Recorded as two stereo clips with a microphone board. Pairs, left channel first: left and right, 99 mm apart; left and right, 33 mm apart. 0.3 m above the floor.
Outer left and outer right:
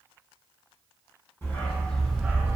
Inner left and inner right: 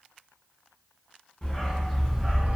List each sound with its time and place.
1.4 s a dog barking: 25° left (ahead or behind), 1.0 m; by 2.6 s 30° right (ahead or behind), 0.6 m